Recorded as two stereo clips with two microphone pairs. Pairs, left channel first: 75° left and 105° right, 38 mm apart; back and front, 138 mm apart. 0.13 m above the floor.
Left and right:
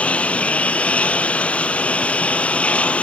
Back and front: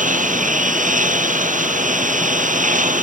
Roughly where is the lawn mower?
Ahead.